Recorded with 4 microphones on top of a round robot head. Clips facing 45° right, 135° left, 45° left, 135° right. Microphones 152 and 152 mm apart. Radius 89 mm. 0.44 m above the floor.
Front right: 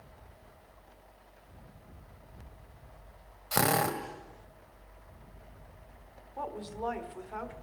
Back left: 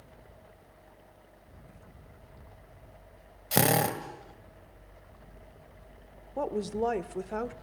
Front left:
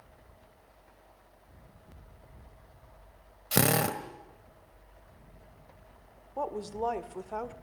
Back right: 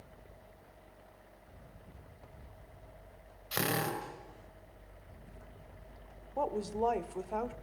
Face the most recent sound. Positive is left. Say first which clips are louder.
# back left 8 dB, back right 1 dB
turn(degrees=140)